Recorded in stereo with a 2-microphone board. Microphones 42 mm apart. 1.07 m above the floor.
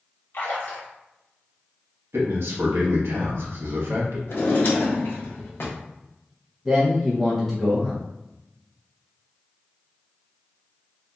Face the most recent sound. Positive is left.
turn(degrees=0)  # may be behind; listen again after turning